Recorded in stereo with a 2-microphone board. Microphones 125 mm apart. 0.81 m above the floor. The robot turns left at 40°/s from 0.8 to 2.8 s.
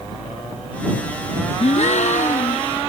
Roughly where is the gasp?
Behind left.